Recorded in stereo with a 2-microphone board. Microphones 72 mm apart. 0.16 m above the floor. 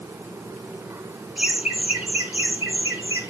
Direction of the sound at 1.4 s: 10° right (ahead or behind).